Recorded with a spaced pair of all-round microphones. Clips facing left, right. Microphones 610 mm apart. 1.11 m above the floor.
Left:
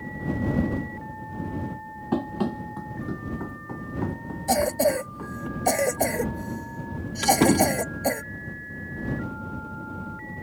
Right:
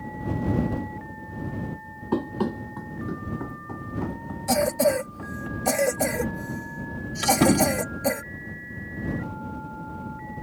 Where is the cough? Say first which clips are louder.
Right 1 dB; 35° right (ahead or behind).